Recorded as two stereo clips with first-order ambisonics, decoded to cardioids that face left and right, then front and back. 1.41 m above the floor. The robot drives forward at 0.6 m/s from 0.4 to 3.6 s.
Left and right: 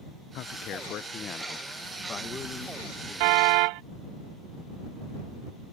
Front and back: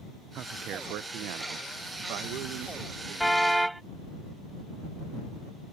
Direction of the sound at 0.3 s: 130° left.